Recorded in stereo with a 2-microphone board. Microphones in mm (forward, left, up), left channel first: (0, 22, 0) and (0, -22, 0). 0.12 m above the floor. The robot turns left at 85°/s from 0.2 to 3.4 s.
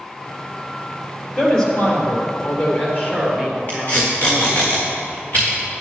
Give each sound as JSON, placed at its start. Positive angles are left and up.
{"t": 1.4, "sound": "a woman speaking", "azimuth_deg": 180, "distance_m": 2.5}
{"t": 3.7, "sound": "tape being pulled", "side_deg": 45, "distance_m": 3.5}